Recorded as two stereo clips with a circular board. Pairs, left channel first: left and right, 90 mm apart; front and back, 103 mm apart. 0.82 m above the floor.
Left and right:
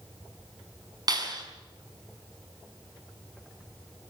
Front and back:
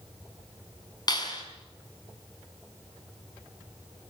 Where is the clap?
50° right, 6 m.